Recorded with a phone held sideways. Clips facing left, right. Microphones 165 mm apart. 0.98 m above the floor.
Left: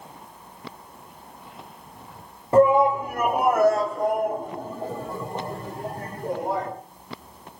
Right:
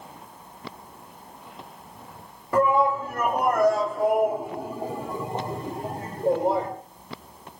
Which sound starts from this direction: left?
A shout, at 2.5 s.